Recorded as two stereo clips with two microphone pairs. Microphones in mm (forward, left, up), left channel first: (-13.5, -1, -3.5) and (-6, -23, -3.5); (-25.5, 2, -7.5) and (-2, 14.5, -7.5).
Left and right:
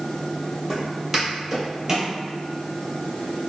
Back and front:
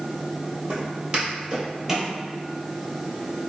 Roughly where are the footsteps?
Ahead.